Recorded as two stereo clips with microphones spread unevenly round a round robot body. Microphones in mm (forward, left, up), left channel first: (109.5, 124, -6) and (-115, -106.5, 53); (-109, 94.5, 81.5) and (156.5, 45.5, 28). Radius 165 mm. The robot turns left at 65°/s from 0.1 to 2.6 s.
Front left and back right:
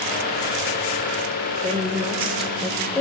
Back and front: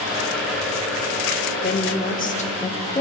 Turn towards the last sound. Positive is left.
turn(degrees=100)